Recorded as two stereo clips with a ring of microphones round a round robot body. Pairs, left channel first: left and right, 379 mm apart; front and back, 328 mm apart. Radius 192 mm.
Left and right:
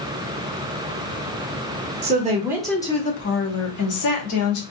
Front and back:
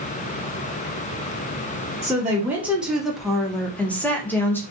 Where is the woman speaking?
110° right, 0.7 m; by 4.6 s 85° left, 1.2 m.